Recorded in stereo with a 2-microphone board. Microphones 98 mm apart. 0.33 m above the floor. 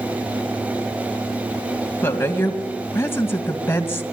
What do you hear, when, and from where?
2.0 s a woman speaking: 25° left (ahead or behind), 2 m